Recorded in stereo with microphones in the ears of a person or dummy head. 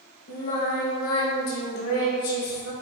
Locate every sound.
0.3 s singing: 60° left (ahead or behind), 1.7 m